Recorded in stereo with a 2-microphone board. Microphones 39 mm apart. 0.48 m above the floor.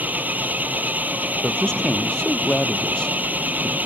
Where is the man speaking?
20° left (ahead or behind).